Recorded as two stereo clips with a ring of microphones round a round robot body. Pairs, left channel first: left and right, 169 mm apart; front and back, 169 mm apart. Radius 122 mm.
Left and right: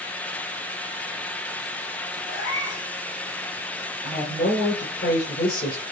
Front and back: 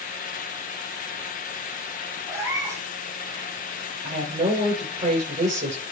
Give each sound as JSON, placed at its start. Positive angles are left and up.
{"t": 2.3, "sound": "a cat meowing", "azimuth_deg": 110, "distance_m": 3.0}
{"t": 4.0, "sound": "a woman speaking", "azimuth_deg": 140, "distance_m": 6.0}